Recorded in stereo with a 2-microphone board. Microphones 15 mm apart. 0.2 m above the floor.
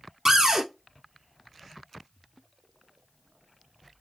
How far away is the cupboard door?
About 1.0 m.